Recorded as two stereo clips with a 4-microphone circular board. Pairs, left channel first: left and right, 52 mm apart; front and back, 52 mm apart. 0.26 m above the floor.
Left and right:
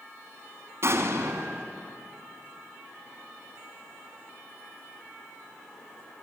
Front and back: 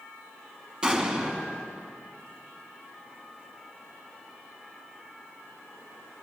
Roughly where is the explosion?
Right.